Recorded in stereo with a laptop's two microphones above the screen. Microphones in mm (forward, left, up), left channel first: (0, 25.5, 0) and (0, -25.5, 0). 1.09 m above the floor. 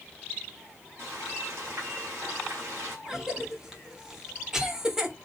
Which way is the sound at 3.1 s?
15° right (ahead or behind).